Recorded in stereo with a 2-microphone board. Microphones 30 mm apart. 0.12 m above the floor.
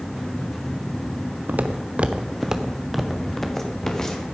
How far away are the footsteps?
About 1.5 m.